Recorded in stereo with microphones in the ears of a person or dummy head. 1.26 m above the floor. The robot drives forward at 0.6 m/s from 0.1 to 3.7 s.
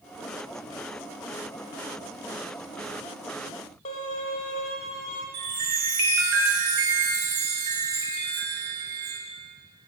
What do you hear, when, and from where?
3.9 s a violin: 30° left (ahead or behind), 0.9 m
5.3 s a chime: 75° right (ahead or behind), 1.6 m